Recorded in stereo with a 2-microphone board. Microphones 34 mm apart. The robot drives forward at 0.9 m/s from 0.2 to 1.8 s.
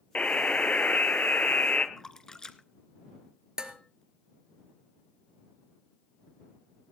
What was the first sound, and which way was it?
A buzzer, 40° left (ahead or behind).